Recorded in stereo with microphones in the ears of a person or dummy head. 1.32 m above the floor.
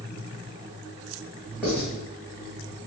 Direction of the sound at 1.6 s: 5° left (ahead or behind).